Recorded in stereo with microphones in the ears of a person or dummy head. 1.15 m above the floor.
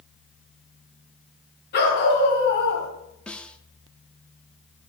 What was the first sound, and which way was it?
A dog barking, 55° left (ahead or behind).